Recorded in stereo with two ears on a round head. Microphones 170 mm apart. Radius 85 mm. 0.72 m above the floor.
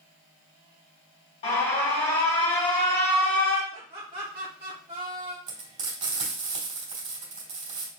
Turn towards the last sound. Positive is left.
turn(degrees=-35)  # may be behind; listen again after turning